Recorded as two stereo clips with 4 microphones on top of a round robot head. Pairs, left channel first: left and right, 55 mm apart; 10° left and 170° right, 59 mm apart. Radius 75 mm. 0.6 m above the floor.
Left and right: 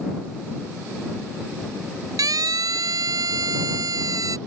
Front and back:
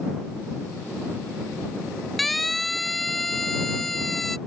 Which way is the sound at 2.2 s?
80° right.